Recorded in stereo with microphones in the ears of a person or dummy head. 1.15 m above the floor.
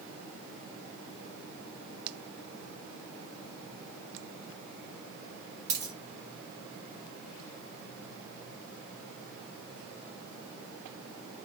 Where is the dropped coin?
40° right (ahead or behind), 1.0 m.